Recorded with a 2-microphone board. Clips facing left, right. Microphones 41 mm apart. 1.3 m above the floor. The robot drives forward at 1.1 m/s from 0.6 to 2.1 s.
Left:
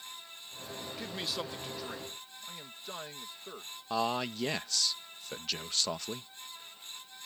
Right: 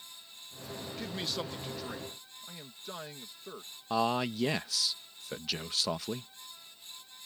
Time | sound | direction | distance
1.0 | a man speaking | 5° left (ahead or behind) | ?
3.9 | a man speaking | 5° right (ahead or behind) | ?